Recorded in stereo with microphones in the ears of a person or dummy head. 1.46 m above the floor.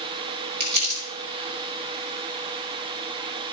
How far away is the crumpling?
About 4.5 m.